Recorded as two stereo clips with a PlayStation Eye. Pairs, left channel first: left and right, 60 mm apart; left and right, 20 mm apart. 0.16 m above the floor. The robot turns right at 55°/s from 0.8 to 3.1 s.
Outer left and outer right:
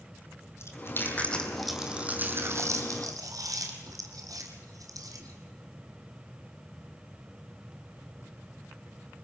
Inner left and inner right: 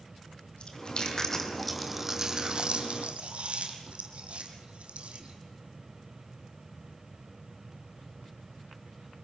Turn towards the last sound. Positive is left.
turn(degrees=-75)  # may be behind; listen again after turning